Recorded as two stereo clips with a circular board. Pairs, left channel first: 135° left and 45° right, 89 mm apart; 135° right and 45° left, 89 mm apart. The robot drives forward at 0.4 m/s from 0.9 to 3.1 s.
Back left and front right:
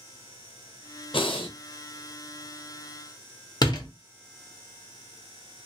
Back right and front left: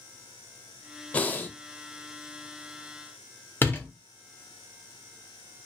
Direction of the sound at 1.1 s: 150° left.